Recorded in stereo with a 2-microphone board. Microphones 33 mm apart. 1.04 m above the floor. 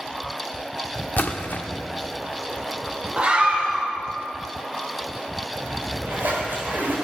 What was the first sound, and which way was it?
A splash, 65° left (ahead or behind).